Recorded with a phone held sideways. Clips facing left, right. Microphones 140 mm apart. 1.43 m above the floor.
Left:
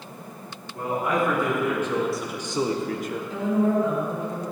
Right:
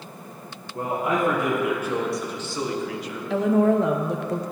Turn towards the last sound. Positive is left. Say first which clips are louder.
# right 4 dB
turn(degrees=-75)  # may be behind; listen again after turning